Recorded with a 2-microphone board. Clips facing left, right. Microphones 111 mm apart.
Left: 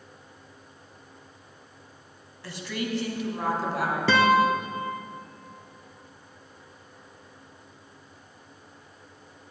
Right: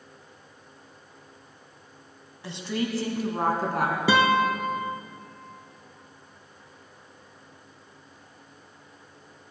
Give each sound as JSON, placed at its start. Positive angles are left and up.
{"t": 2.4, "sound": "a woman speaking", "side_deg": -20, "distance_m": 1.5}
{"t": 4.1, "sound": "a guitar", "side_deg": -10, "distance_m": 1.1}